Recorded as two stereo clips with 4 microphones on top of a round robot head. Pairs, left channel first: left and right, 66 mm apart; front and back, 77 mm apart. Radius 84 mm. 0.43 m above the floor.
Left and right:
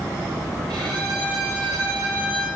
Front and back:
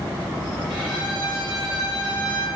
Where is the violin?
95° right, 6 m.